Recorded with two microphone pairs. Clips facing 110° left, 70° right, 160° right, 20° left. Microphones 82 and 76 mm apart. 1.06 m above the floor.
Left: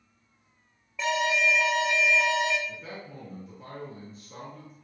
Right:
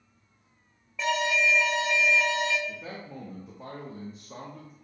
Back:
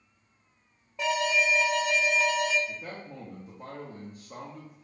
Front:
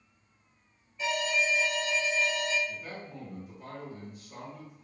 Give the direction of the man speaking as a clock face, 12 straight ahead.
4 o'clock.